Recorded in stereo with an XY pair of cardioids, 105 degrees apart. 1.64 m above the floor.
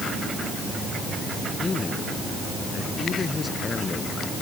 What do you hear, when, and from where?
1.6 s a man speaking: 35° left